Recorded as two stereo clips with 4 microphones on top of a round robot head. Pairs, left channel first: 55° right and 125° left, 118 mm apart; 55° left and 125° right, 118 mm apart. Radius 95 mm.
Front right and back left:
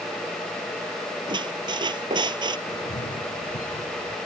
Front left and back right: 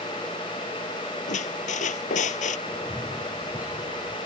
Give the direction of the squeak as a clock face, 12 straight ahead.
10 o'clock.